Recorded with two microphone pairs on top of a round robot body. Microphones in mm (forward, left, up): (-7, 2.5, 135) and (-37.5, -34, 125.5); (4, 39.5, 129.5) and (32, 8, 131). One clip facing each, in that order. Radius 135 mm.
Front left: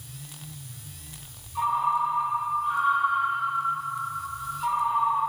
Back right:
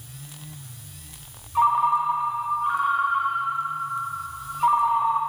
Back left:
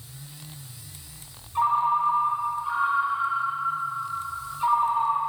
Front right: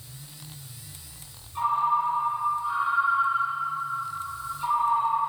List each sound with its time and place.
1.6 s a ringtone: 155° right, 1.4 m